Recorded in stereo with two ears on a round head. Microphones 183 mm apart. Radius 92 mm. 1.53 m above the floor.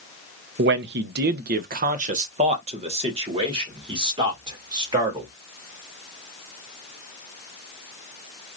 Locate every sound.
0.6 s a man speaking: 55° right (ahead or behind), 0.6 m; by 5.3 s 20° right (ahead or behind), 2.5 m